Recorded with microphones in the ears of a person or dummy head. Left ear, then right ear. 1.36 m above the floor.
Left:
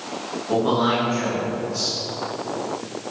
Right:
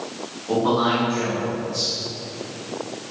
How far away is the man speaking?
About 2.5 m.